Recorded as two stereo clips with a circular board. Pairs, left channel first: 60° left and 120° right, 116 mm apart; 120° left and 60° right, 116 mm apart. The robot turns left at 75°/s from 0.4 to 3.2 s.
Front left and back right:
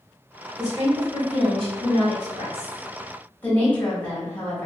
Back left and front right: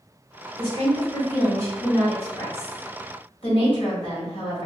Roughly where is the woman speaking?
Ahead right.